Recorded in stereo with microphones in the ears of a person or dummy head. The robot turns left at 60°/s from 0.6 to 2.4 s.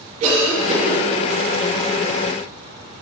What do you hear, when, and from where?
0.2 s a cough: 45° right (ahead or behind), 2.5 m; by 1.0 s 70° right (ahead or behind), 2.5 m